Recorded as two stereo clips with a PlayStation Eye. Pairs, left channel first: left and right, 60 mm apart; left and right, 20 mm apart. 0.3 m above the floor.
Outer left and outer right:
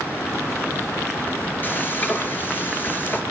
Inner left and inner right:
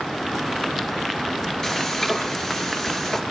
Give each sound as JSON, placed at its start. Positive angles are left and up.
{"t": 1.6, "sound": "frying", "side_deg": 30, "distance_m": 3.5}